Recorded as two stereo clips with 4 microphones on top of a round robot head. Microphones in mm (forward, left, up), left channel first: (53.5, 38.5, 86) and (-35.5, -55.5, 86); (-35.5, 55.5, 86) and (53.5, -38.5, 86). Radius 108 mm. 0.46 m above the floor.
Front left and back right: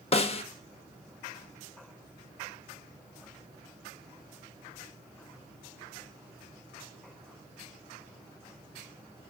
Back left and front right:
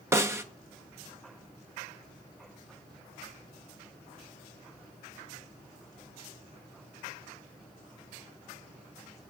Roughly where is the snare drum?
Ahead.